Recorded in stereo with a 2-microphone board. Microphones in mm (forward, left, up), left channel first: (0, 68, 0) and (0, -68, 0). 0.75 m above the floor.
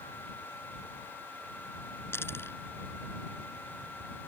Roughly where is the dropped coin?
Centre.